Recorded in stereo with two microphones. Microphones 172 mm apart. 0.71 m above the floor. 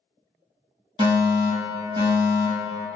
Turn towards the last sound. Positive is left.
turn(degrees=-25)  # may be behind; listen again after turning